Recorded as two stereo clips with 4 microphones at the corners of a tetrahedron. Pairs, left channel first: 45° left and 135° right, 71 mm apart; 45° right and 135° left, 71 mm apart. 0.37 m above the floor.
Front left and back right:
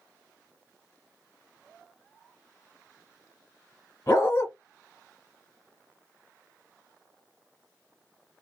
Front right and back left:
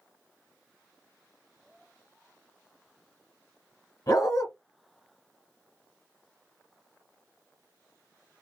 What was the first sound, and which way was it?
A dog barking, 15° right.